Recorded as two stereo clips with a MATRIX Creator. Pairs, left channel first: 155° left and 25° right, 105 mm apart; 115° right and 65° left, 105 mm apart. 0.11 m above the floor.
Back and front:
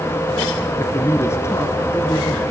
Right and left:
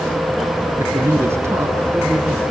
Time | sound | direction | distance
0.8 | a man speaking | 115° left | 1.3 m